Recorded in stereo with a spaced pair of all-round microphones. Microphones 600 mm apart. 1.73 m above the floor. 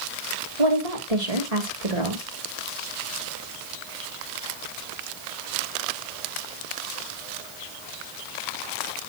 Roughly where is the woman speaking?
Right.